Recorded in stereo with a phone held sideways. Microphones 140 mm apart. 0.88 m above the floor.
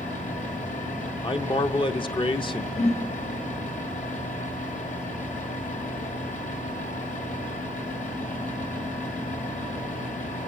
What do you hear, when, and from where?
0.0 s a fan: 70° left (ahead or behind), 2.5 m
1.2 s a man speaking: 35° left (ahead or behind), 0.6 m
2.8 s a whoosh: 50° left (ahead or behind), 1.6 m